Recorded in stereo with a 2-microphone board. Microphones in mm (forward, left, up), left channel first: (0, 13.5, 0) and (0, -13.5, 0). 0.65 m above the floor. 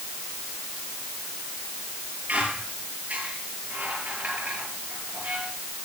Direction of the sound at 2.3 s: 70° right (ahead or behind).